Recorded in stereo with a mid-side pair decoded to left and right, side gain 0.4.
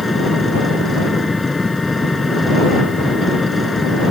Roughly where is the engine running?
Ahead left.